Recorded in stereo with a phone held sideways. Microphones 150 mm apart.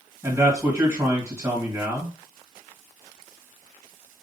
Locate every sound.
0.2 s a man speaking: 20° right (ahead or behind), 1.8 m